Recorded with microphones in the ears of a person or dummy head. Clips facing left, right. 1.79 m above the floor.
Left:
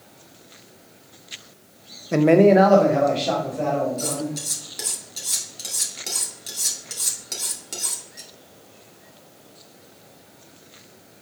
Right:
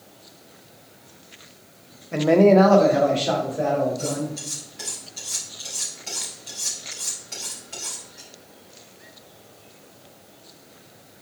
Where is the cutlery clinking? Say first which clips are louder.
Even; 60° left (ahead or behind), 2 m.